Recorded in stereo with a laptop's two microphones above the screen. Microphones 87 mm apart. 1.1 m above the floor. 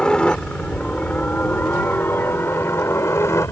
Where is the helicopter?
10° left (ahead or behind); by 3.5 s 30° left (ahead or behind).